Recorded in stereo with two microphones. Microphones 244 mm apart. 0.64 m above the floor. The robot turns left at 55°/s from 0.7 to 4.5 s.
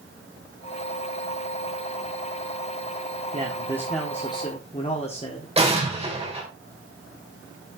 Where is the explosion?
25° right (ahead or behind), 2.5 m.